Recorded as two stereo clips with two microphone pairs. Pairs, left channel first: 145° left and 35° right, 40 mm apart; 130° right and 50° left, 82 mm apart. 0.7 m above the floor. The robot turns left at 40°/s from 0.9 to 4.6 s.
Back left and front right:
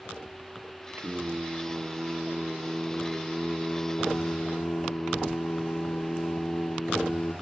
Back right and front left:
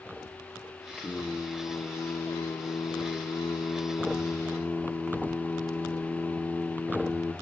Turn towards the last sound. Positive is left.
turn(degrees=160)